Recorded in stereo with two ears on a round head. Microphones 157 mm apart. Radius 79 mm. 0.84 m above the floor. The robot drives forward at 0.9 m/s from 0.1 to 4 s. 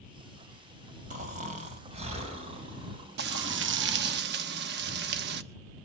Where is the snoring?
50° right (ahead or behind), 3.5 m; by 4.2 s 30° right (ahead or behind), 5.5 m.